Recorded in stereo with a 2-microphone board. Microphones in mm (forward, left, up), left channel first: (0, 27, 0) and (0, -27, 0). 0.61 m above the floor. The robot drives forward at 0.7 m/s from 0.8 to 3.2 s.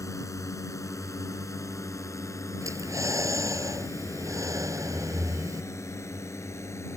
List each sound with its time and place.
0.0 s a drone: 80° left; by 7.0 s 65° left (ahead or behind)
2.6 s breathing: 85° right